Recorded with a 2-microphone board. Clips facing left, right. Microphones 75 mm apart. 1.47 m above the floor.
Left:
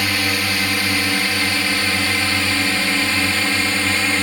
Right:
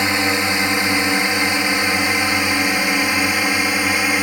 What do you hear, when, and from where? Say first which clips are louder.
0.0 s a drone: right 3 dB; 25° right (ahead or behind); by 4.2 s 15° right (ahead or behind)